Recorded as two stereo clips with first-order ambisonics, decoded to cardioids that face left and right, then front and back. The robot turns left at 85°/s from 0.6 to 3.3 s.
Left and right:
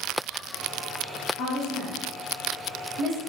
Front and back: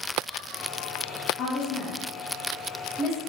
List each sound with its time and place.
1.4 s a woman speaking: 60° left, 0.7 m; by 3.2 s 95° right, 0.7 m